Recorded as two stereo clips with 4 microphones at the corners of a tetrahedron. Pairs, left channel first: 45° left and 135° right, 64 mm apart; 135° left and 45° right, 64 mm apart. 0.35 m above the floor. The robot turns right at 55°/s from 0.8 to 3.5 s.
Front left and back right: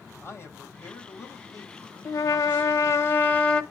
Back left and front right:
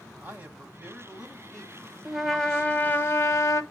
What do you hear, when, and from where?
0.2 s a man speaking: 10° left, 1.7 m; by 3.0 s 135° left, 1.7 m
2.0 s a trumpet: 35° left, 0.8 m; by 3.6 s 115° left, 0.8 m